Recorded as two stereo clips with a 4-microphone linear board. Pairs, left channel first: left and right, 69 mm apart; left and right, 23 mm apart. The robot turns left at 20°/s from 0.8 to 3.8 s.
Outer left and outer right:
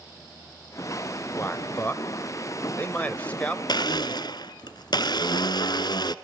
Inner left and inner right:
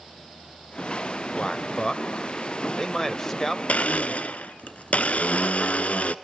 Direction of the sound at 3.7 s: 90° left.